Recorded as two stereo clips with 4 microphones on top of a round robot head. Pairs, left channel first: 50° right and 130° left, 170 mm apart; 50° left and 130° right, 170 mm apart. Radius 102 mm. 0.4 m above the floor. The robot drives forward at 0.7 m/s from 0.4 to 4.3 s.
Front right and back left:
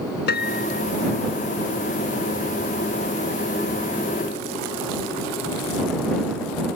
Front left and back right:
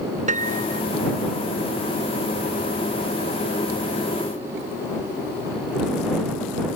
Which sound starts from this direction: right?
A piano, at 0.3 s.